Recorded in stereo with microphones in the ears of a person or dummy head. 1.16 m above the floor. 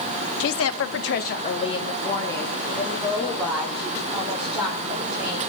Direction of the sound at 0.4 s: 60° left (ahead or behind).